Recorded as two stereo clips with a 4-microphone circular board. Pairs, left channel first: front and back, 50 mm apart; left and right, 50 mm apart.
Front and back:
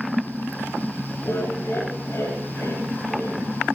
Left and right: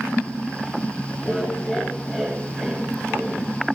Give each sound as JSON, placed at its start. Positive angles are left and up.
{"t": 1.2, "sound": "laughter", "azimuth_deg": 15, "distance_m": 5.5}